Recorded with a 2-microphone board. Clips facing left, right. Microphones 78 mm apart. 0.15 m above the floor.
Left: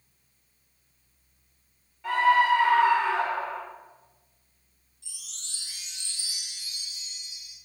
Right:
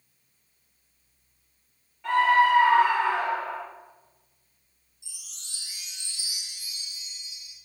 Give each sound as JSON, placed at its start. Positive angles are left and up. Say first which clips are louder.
{"t": 2.0, "sound": "a scream", "louder": "right 1 dB", "side_deg": 0, "distance_m": 2.0}
{"t": 5.0, "sound": "a chime", "louder": "left 2 dB", "side_deg": -15, "distance_m": 2.0}